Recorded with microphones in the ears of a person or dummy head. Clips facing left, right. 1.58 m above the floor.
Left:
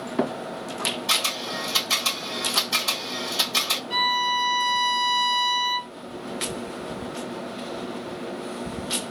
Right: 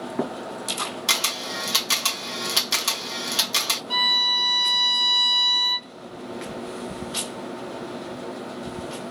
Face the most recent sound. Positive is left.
turn(degrees=-80)